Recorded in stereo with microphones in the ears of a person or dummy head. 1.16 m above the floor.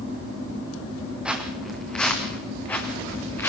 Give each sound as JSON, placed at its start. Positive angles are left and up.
{"t": 1.2, "sound": "footsteps", "side_deg": 0, "distance_m": 4.0}